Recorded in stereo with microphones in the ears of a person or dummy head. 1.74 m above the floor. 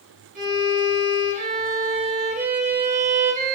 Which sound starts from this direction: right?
A violin, at 0.3 s.